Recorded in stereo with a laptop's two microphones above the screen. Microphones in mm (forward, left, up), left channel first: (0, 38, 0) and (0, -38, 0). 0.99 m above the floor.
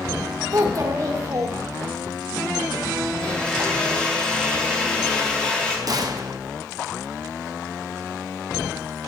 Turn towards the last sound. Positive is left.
turn(degrees=-50)  # may be behind; listen again after turning